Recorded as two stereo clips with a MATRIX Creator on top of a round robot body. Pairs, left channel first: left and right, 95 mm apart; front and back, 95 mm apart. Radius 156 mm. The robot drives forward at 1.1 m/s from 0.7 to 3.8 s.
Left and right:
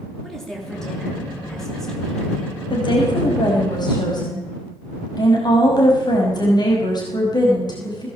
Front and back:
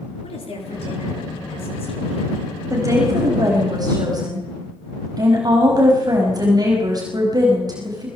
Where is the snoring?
I don't hear snoring.